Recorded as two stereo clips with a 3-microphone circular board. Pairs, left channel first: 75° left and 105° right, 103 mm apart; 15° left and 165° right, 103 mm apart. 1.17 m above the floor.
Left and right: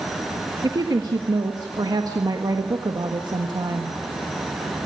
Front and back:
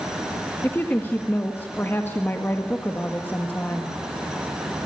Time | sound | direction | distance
0.6 | a woman speaking | 55° right | 1.4 m